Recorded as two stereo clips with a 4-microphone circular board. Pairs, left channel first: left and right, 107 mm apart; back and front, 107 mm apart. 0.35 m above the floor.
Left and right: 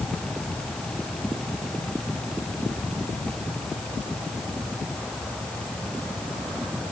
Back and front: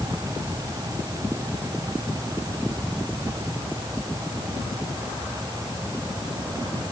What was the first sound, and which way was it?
Only background noise.